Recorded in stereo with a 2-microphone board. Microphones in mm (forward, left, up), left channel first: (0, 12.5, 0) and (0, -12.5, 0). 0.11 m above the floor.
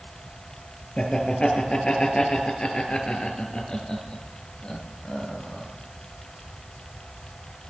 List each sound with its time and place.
1.0 s laughter: 40° left (ahead or behind), 1.9 m